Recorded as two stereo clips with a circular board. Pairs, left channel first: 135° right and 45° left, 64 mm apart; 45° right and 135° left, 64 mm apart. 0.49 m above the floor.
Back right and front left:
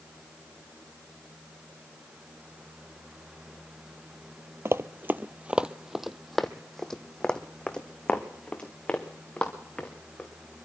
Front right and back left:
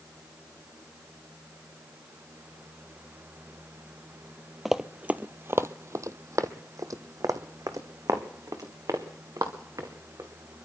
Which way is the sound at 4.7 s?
50° left.